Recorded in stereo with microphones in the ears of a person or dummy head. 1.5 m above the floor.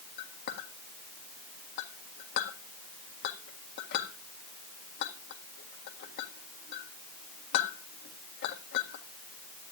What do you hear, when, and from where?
0.2 s a clink: 60° left (ahead or behind), 1.5 m